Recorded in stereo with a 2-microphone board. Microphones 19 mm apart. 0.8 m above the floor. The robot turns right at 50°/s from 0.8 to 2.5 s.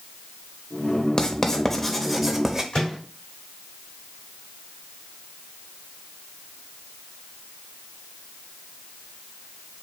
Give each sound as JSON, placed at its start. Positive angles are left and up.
{"t": 1.2, "sound": "writing", "side_deg": 40, "distance_m": 0.7}
{"t": 2.7, "sound": "a microwave", "side_deg": 40, "distance_m": 3.0}